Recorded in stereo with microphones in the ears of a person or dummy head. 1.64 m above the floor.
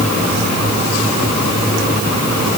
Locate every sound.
Only background noise.